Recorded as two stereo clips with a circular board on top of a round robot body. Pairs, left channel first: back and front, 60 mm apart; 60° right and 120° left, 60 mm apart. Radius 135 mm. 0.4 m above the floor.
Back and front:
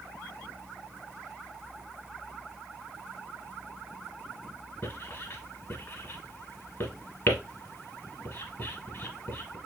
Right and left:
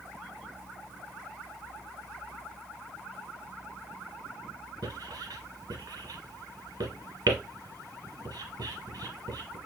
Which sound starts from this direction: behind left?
Writing, at 4.8 s.